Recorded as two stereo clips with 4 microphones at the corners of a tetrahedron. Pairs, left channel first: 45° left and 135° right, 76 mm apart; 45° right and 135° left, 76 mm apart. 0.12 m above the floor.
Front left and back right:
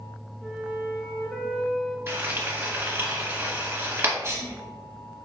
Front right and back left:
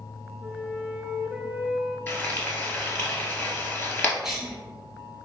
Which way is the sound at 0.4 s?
130° left.